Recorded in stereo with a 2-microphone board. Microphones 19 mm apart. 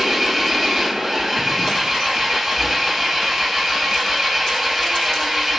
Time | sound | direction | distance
0.0 | an engine running | 30° right (ahead or behind) | 5 m